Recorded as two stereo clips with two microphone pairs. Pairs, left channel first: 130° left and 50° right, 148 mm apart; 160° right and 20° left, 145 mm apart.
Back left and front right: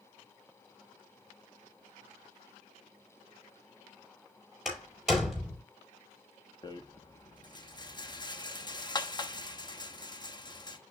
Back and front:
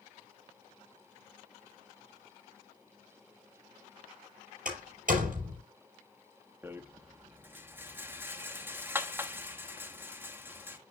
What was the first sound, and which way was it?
A door slam, 45° left.